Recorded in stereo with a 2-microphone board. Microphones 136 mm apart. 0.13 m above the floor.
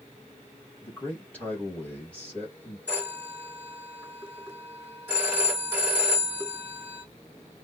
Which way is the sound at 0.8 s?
10° left (ahead or behind).